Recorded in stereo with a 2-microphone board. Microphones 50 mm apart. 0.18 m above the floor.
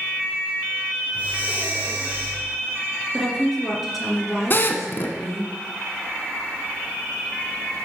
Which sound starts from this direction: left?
A drill, at 4.5 s.